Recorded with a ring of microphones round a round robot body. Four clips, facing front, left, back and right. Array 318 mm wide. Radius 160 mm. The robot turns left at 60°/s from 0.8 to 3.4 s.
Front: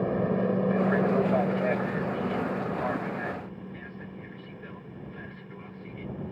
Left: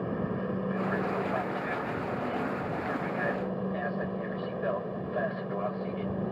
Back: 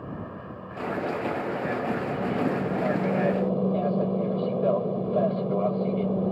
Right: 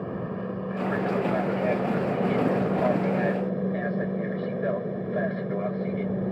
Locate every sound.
0.0 s an aircraft: 5° left; by 6.3 s 155° right